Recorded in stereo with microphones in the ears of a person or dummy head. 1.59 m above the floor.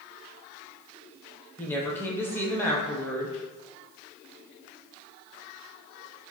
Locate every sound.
1.6 s a woman speaking: 10° left (ahead or behind), 0.9 m